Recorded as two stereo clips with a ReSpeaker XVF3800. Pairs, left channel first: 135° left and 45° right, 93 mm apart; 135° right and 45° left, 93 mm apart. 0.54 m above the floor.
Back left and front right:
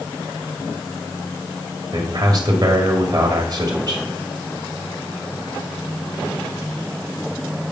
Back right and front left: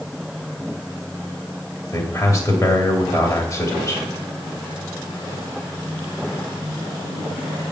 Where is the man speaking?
85° right, 2.5 m.